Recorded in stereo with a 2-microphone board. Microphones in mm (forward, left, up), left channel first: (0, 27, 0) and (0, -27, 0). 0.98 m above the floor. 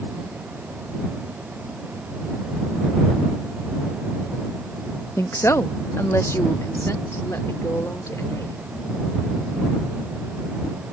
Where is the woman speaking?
60° left (ahead or behind).